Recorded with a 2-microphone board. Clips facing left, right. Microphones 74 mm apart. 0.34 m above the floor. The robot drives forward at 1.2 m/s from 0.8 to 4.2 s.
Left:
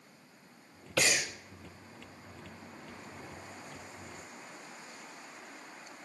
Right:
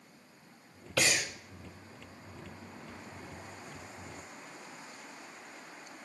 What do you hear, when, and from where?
1.0 s breathing: 5° left (ahead or behind), 0.8 m